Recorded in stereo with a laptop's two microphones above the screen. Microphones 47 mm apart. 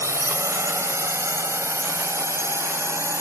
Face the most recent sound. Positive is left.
turn(degrees=-80)